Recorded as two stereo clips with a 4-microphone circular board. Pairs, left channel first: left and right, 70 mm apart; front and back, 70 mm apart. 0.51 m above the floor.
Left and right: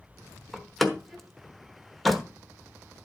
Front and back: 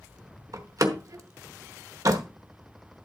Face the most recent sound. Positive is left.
turn(degrees=180)